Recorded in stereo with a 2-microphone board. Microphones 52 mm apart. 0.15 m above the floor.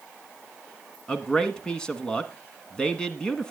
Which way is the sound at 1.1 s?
15° left (ahead or behind).